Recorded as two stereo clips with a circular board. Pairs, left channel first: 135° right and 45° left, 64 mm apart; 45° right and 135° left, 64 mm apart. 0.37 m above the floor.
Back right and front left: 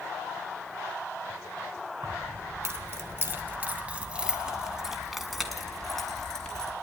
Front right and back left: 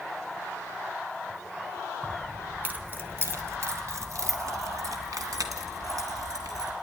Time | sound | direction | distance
2.0 | keys jangling | 65° left | 1.6 m